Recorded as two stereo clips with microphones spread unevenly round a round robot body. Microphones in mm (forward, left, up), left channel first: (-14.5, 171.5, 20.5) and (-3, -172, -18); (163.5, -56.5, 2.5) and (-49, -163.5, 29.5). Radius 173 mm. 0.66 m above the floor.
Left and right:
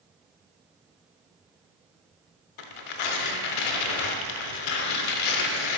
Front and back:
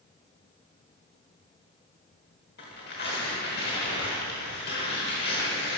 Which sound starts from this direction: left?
Tearing paper, at 2.6 s.